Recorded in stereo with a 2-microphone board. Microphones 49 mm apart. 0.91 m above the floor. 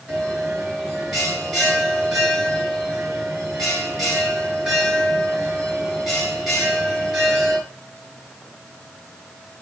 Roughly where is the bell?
Centre.